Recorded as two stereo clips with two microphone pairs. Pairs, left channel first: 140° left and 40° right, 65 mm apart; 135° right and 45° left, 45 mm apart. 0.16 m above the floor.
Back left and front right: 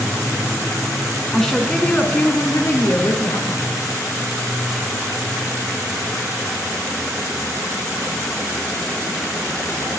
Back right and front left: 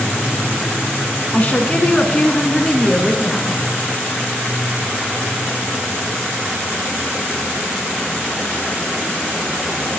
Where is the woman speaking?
135° right, 1.8 m; by 3.6 s 135° left, 2.5 m.